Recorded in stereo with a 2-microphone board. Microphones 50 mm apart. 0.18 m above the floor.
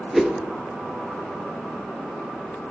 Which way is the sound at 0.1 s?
Centre (ahead or behind).